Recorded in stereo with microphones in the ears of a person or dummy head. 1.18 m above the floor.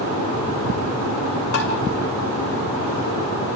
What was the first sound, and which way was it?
Tapping, 55° left (ahead or behind).